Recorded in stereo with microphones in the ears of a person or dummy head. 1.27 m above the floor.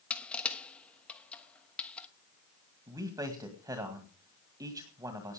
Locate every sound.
0.1 s crushing: 5° left (ahead or behind), 1.2 m
2.9 s a man speaking: 10° right (ahead or behind), 1.8 m